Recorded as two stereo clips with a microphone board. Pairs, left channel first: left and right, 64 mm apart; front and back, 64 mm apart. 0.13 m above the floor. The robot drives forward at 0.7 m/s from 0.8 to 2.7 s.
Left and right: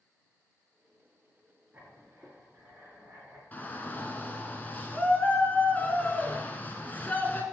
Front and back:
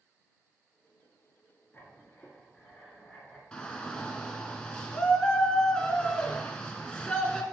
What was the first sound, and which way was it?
Writing, 50° right.